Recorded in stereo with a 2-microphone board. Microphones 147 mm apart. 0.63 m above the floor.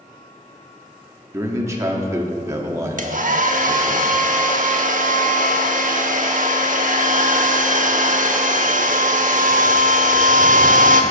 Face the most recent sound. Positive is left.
turn(degrees=-65)  # may be behind; listen again after turning